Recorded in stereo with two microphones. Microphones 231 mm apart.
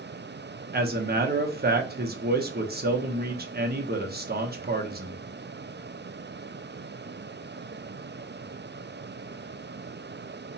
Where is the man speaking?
40° right (ahead or behind), 0.6 m.